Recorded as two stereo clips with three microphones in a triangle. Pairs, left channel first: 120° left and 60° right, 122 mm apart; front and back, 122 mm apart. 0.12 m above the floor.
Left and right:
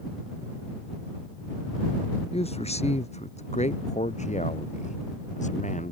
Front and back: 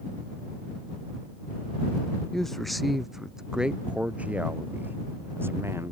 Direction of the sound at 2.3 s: 85° left.